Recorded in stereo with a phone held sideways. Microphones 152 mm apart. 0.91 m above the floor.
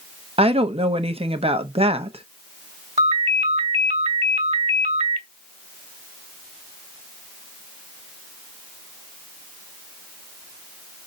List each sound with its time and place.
0.4 s a woman speaking: 40° right (ahead or behind), 1.0 m
3.0 s a ringtone: 45° right (ahead or behind), 1.7 m